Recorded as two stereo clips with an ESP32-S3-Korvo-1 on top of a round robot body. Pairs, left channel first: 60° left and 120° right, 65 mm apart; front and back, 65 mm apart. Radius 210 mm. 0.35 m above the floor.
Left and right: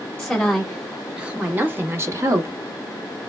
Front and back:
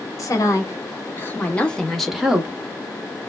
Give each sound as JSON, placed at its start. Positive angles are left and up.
{"t": 0.2, "sound": "a woman speaking", "azimuth_deg": -25, "distance_m": 1.4}